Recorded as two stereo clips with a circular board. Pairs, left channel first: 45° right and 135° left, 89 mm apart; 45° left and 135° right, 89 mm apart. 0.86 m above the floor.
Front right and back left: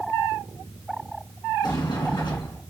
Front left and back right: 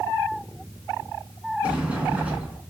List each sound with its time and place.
1.6 s a sliding door: 60° right, 1.3 m